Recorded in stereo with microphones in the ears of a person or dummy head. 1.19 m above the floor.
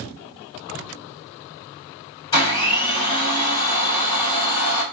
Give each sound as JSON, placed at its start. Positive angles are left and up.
{"t": 2.3, "sound": "a blender", "side_deg": 20, "distance_m": 1.1}